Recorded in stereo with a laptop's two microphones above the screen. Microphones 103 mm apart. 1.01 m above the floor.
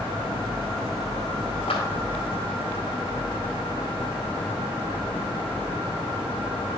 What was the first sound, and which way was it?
A clap, 75° left (ahead or behind).